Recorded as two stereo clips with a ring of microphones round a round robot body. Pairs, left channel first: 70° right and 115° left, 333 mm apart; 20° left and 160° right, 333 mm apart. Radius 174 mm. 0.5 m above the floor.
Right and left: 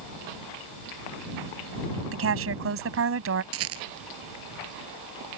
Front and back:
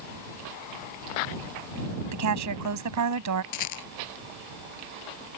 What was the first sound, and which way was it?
A woman speaking, 165° left.